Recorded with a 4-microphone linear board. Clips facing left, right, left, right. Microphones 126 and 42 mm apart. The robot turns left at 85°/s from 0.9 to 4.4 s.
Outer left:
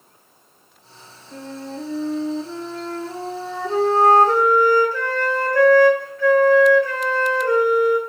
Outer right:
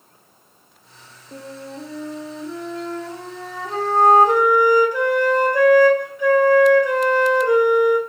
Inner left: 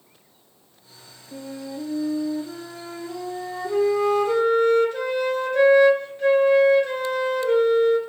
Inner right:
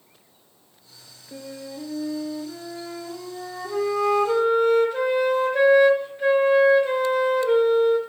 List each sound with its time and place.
1.3 s a flute: 125° right, 0.8 m; by 8.0 s 25° right, 0.8 m